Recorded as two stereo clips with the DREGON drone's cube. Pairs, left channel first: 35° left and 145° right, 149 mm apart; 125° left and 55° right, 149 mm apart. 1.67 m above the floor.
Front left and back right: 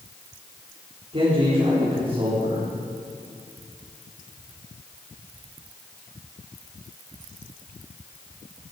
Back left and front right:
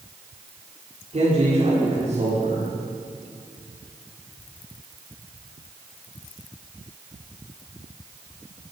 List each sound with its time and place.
1.1 s a man speaking: 95° right, 4.5 m